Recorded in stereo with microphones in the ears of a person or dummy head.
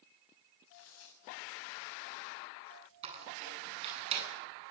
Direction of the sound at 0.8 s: 80° left.